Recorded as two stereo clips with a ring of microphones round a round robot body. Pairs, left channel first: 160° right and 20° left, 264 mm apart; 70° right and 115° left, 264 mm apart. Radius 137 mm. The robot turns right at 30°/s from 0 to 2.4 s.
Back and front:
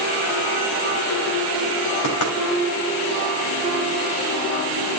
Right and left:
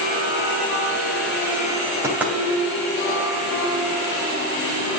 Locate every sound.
2.0 s knocking: 170° right, 3 m; by 2.3 s 160° right, 3 m